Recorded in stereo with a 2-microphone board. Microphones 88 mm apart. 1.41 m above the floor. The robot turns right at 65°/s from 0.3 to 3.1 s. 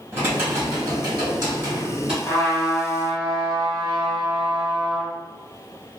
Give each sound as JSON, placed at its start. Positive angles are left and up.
{"t": 0.1, "sound": "typing on a keyboard", "azimuth_deg": -140, "distance_m": 1.5}
{"t": 2.2, "sound": "a trumpet", "azimuth_deg": 120, "distance_m": 1.4}